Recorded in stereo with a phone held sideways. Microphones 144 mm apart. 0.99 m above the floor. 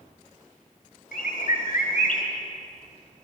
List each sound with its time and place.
1.1 s a bird: 80° left, 2.5 m